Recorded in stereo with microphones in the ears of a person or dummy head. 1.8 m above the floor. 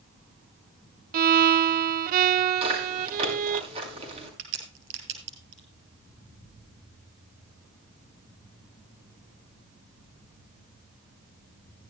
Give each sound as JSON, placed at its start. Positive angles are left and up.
{"t": 1.1, "sound": "a violin", "side_deg": -50, "distance_m": 0.6}
{"t": 2.6, "sound": "chewing", "side_deg": -35, "distance_m": 5.5}
{"t": 4.4, "sound": "a crack", "side_deg": -70, "distance_m": 5.0}